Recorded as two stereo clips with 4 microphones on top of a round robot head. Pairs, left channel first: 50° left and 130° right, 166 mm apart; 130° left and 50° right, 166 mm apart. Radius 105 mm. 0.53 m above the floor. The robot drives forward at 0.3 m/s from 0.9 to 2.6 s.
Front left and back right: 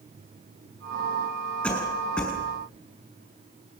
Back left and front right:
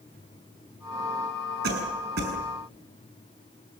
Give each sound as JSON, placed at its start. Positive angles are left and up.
{"t": 1.6, "sound": "a cough", "azimuth_deg": -30, "distance_m": 6.0}